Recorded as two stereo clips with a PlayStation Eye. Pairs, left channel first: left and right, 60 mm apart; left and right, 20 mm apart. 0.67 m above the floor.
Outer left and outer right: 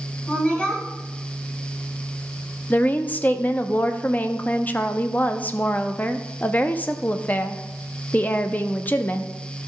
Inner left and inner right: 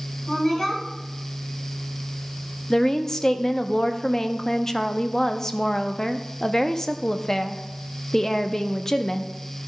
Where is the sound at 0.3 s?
20° left (ahead or behind), 3 m.